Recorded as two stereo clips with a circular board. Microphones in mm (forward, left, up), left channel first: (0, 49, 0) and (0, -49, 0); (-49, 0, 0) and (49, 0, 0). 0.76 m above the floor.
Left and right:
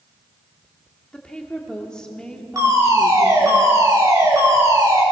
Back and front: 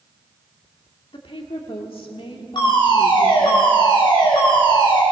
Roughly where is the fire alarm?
Behind right.